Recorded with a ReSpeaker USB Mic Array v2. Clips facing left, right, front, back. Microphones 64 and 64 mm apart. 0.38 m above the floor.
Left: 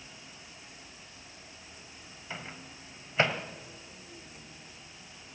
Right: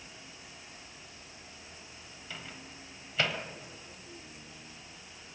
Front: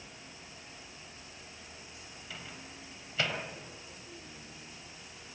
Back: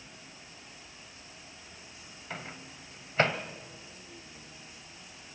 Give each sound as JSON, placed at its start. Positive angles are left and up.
{"t": 2.3, "sound": "a microwave", "azimuth_deg": 145, "distance_m": 1.9}